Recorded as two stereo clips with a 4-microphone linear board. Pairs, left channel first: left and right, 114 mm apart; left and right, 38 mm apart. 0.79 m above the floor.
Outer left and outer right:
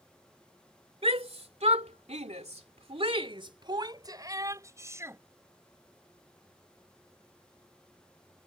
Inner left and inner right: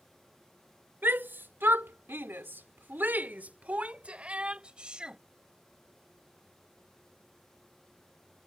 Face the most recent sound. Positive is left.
turn(degrees=-25)  # may be behind; listen again after turning